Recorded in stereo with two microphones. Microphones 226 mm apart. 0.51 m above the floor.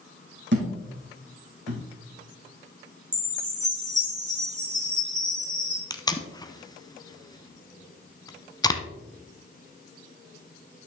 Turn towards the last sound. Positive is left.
turn(degrees=15)  # may be behind; listen again after turning